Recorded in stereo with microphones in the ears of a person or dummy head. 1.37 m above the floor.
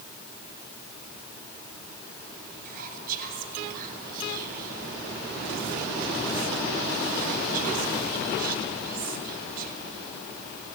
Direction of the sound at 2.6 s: 50° right (ahead or behind).